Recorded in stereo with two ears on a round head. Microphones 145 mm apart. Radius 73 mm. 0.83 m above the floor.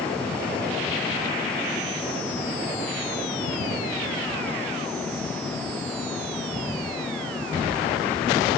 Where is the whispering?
No whispering in this recording.